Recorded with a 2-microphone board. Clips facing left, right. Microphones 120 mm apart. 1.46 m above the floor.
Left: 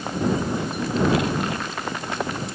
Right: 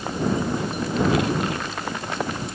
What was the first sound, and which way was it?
Only background noise.